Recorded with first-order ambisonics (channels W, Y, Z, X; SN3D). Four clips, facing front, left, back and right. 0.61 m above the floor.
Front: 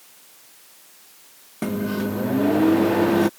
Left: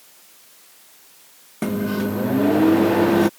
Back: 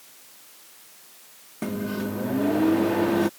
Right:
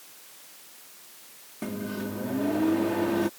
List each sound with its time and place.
1.6 s a microwave: 65° left